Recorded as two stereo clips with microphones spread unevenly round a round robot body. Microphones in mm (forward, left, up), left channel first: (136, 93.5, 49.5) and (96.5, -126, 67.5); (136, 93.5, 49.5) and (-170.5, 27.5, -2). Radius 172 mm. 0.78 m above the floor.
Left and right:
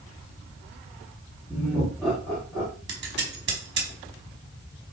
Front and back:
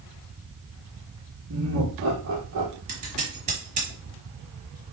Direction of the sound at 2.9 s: 120° right.